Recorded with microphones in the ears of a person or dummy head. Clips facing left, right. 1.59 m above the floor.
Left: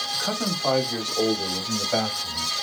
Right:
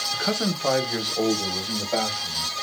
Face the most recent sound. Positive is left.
turn(degrees=15)  # may be behind; listen again after turning